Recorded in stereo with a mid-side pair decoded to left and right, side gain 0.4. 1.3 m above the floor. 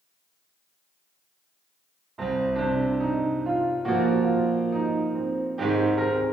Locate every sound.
2.2 s a piano: 35° right, 1.1 m